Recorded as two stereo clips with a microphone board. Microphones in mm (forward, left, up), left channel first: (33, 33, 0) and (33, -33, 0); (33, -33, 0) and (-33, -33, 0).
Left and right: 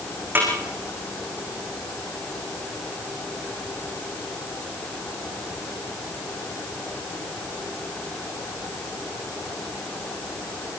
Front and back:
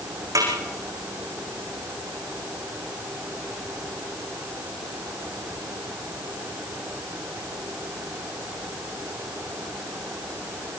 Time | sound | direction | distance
0.3 | a snare drum | 150° right | 7 m